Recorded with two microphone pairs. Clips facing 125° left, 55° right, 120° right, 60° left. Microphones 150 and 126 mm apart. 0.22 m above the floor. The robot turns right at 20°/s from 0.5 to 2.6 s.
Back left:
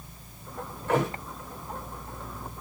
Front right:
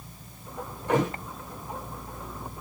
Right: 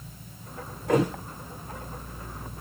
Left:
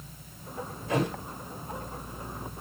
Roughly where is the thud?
Behind right.